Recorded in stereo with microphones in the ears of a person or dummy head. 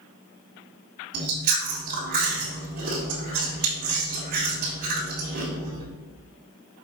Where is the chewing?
45° right (ahead or behind), 1.7 m.